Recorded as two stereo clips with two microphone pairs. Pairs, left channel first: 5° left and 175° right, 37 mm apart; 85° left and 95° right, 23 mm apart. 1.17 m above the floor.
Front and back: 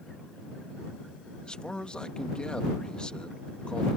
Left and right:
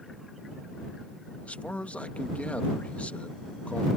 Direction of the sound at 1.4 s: 70° left.